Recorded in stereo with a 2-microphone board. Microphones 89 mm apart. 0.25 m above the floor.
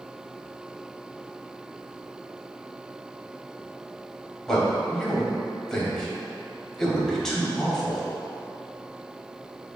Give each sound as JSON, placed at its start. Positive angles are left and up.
{"t": 4.5, "sound": "a man speaking", "side_deg": 5, "distance_m": 0.9}